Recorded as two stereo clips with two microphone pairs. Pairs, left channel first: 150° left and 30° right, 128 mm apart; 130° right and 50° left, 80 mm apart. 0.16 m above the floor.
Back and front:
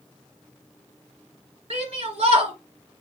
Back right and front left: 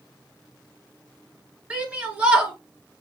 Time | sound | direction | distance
1.7 | a shout | 25° right | 2 m